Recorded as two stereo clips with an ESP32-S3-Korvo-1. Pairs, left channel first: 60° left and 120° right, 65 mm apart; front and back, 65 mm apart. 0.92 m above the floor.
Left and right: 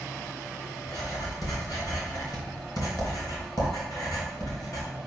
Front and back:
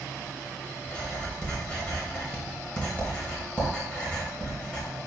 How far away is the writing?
About 3 m.